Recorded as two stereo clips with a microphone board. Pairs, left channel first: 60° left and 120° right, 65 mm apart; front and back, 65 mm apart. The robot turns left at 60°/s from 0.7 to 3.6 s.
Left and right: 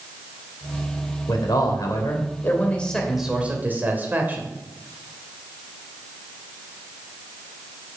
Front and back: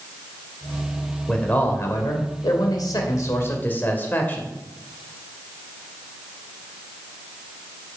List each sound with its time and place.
1.3 s a man speaking: 80° left, 1.6 m; by 4.5 s 60° right, 1.6 m